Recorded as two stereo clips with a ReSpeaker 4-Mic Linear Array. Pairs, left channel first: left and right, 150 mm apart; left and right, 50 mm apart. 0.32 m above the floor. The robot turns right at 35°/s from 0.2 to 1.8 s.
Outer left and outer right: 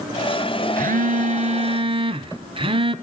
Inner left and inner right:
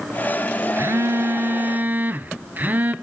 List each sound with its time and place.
0.8 s a phone buzzing: 75° right, 0.9 m; by 3.0 s 40° right, 0.9 m